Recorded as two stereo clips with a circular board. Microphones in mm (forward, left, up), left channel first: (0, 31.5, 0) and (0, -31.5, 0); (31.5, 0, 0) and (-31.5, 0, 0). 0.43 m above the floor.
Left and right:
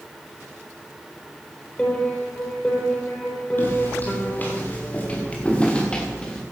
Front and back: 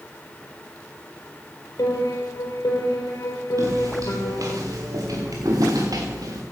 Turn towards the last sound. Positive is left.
turn(degrees=170)